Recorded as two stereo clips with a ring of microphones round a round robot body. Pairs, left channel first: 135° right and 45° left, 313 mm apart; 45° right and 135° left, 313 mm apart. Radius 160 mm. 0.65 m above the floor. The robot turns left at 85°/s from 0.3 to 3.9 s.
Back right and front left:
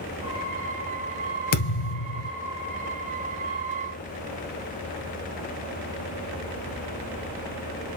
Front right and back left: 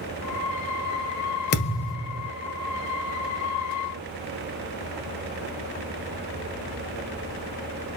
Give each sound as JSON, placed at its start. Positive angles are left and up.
{"t": 1.5, "sound": "a thud", "azimuth_deg": -100, "distance_m": 1.8}